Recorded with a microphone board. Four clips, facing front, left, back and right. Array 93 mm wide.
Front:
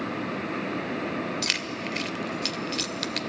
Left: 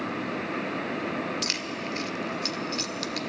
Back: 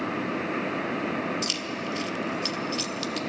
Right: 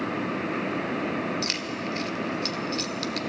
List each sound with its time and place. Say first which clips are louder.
1.4 s keys jangling: right 2 dB, even; 5° left, 0.8 m